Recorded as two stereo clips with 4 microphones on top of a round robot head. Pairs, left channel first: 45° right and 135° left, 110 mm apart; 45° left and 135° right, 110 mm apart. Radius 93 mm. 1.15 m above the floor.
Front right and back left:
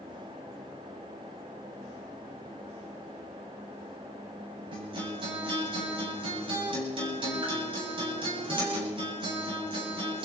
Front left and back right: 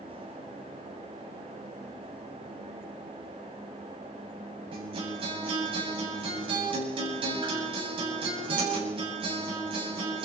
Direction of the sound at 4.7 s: Straight behind.